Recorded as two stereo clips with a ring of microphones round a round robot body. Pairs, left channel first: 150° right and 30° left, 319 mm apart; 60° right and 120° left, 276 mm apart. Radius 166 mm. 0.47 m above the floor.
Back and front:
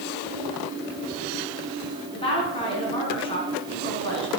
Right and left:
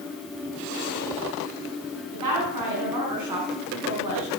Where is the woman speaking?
135° left, 4.5 m.